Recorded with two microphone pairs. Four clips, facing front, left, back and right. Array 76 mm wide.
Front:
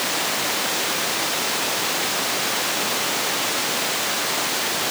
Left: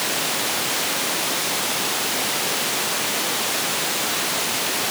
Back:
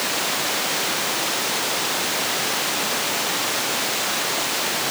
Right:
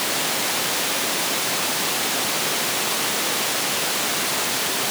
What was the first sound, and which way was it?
Only background noise.